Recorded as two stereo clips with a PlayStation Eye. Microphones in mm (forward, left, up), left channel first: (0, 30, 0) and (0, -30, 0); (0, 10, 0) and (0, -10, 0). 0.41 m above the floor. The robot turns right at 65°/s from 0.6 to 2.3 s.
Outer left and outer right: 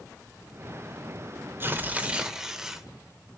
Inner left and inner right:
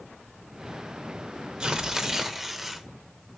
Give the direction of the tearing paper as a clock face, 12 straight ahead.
2 o'clock.